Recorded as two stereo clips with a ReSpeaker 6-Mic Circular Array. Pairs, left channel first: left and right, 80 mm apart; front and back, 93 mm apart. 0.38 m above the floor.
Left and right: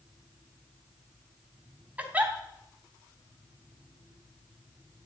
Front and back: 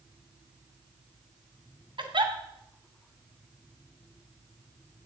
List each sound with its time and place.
2.0 s a giggle: 160° right, 2.5 m